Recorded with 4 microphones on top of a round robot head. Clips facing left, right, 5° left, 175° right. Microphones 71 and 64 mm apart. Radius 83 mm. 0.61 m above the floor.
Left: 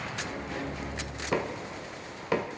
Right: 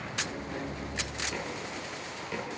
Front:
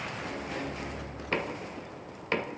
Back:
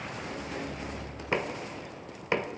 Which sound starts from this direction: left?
Knocking, at 1.3 s.